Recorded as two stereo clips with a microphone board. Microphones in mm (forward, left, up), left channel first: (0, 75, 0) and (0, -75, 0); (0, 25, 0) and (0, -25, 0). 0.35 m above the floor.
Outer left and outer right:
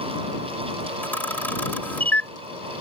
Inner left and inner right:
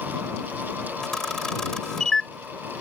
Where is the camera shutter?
10° left (ahead or behind).